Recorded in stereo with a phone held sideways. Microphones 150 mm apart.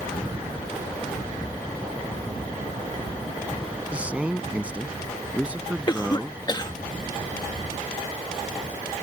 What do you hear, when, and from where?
3.9 s a man speaking: 10° right (ahead or behind)
5.9 s a cough: 30° left (ahead or behind)